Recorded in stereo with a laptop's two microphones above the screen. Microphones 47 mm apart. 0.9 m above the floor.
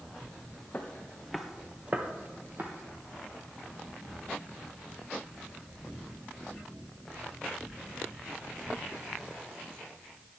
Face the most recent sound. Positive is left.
turn(degrees=-50)  # may be behind; listen again after turning